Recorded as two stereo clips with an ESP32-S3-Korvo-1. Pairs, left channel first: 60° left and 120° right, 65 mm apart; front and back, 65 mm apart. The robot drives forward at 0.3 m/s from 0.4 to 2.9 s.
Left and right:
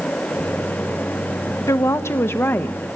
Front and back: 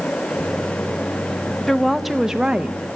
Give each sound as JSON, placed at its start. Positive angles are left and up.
{"t": 1.7, "sound": "a woman speaking", "azimuth_deg": 85, "distance_m": 0.8}